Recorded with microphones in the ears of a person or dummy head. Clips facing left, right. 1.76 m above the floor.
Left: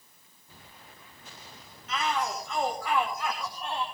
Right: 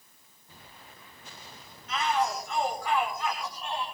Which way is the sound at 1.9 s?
70° left (ahead or behind).